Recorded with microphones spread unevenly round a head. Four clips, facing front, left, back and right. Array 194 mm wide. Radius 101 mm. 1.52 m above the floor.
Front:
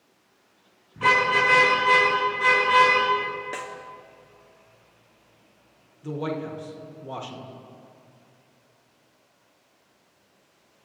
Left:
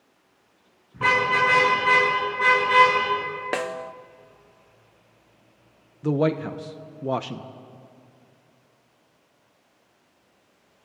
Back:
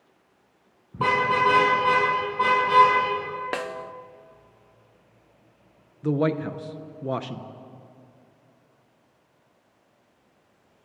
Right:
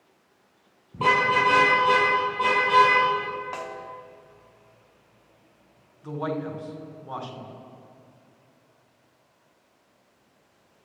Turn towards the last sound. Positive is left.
turn(degrees=125)